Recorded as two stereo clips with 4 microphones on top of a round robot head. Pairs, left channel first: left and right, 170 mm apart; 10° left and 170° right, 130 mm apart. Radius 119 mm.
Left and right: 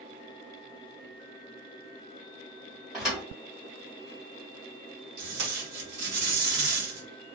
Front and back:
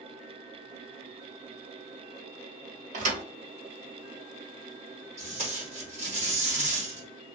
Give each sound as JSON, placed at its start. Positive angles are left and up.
{"t": 2.9, "sound": "a thud", "azimuth_deg": -175, "distance_m": 1.1}
{"t": 5.2, "sound": "tape being pulled", "azimuth_deg": -115, "distance_m": 1.3}